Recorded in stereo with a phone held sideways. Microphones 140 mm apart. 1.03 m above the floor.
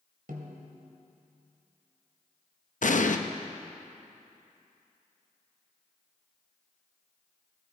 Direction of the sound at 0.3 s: 80° right.